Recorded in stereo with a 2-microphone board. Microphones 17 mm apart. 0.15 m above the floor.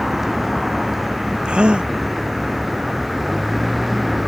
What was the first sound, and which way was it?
A vehicle, 15° right (ahead or behind).